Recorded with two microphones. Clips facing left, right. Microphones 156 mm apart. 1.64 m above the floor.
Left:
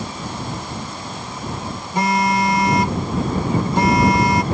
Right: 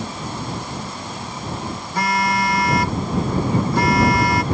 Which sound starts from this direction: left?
A phone buzzing, at 1.9 s.